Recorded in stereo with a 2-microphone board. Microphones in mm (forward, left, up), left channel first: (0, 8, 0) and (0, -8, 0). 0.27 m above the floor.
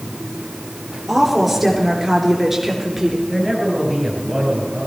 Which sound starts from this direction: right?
A man speaking, at 3.3 s.